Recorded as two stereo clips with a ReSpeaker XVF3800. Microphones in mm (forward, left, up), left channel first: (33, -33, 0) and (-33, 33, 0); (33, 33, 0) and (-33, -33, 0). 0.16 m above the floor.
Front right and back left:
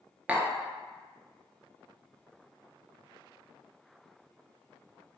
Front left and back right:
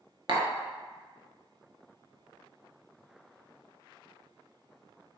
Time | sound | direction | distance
0.3 | tapping | 150° right | 0.6 m